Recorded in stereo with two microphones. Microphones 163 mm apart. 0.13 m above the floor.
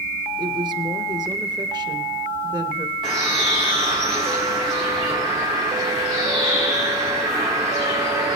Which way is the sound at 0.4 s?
25° right (ahead or behind).